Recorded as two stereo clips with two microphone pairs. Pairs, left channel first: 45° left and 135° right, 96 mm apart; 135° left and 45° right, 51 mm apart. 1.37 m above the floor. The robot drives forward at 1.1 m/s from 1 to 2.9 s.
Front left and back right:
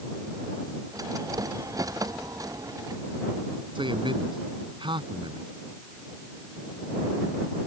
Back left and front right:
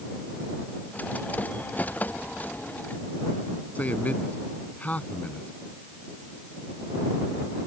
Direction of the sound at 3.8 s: 170° right.